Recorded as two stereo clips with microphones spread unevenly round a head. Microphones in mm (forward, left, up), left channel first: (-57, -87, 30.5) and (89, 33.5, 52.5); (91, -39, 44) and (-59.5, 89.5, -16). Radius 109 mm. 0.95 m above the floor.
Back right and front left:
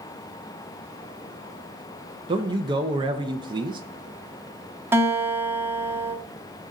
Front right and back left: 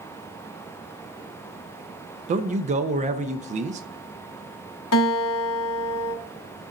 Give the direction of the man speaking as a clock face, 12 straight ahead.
8 o'clock.